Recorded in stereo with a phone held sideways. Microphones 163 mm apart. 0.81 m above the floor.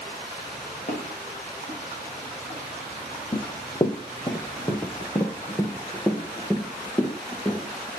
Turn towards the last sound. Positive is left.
turn(degrees=15)  # may be behind; listen again after turning